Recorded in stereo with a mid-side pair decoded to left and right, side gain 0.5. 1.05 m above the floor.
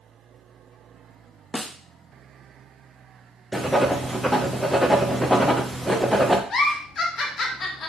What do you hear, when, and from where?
1.5 s a snare drum: 10° left, 0.7 m
3.5 s writing: straight ahead, 0.9 m
6.5 s a giggle: 50° left, 1.2 m